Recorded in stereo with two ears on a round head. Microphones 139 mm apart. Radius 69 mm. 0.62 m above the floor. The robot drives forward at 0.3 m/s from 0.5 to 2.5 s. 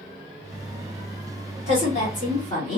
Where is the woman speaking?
50° left (ahead or behind), 1.8 m.